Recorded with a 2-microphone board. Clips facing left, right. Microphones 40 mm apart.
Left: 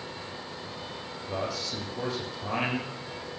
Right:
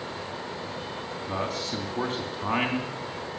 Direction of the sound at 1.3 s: 50° right (ahead or behind).